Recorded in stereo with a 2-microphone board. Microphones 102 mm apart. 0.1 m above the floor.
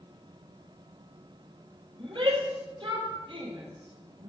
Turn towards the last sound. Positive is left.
turn(degrees=-55)  # may be behind; listen again after turning